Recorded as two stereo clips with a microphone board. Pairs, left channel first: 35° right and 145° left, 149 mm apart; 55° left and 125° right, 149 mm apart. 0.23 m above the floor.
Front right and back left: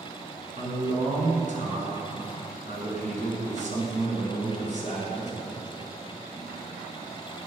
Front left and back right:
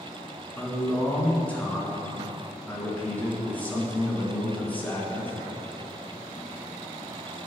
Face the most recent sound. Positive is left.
turn(degrees=130)